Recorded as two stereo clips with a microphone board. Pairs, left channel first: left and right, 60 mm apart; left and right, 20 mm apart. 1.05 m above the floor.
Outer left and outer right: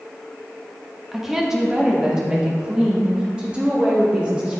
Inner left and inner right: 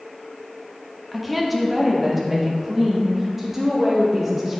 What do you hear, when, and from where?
1.1 s a woman speaking: 5° right (ahead or behind), 1.6 m; by 4.6 s 20° right (ahead or behind), 4 m